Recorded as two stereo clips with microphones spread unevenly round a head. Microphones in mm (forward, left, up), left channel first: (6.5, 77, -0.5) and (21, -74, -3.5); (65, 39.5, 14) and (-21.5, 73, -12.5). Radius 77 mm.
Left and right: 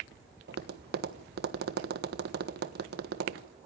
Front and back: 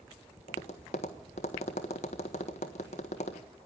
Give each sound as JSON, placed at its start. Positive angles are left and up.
{"t": 0.5, "sound": "tapping", "azimuth_deg": -60, "distance_m": 1.3}